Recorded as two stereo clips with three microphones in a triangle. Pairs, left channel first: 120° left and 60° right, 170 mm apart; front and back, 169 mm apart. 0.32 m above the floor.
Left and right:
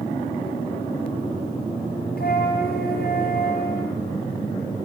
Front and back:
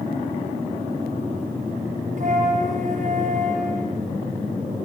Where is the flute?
140° left, 4.5 m.